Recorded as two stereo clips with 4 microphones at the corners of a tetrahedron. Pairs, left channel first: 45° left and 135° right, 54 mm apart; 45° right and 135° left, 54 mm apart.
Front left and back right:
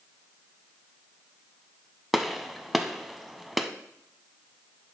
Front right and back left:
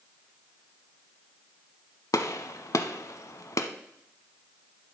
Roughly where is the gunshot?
Ahead right.